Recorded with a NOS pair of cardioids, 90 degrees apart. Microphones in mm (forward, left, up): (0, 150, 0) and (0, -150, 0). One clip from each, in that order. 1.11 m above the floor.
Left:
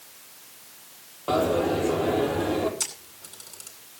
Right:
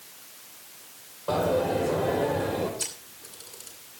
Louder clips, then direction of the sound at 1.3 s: Left 1 dB; 55° left.